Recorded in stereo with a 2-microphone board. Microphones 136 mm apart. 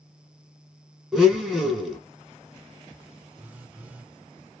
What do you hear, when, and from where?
1.1 s a blender: 5° right (ahead or behind), 1.3 m
3.4 s a phone buzzing: 10° right (ahead or behind), 0.6 m